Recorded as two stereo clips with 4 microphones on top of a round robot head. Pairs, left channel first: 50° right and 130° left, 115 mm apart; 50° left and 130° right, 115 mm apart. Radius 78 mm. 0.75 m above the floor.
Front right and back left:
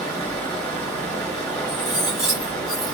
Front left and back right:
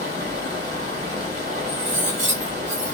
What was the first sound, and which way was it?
Running water, 130° right.